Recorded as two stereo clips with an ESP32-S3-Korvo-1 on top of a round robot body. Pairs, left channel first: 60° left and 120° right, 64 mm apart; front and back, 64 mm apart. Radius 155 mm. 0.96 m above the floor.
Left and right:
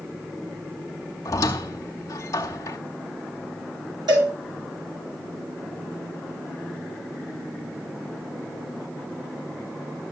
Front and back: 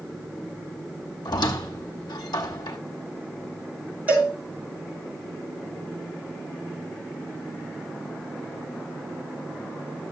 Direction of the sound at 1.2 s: 15° left.